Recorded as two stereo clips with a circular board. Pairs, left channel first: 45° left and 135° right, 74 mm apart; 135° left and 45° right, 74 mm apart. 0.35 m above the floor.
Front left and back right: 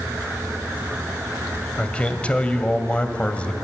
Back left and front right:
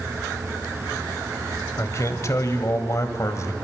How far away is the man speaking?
About 1.6 m.